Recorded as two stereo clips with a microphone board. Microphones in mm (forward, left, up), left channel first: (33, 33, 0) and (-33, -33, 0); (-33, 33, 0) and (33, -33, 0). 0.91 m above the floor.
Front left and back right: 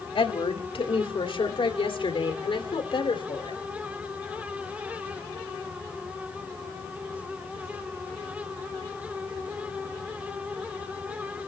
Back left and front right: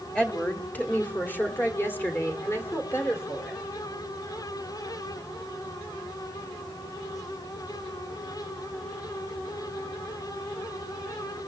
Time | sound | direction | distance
0.1 | a woman speaking | 55° left | 2.0 m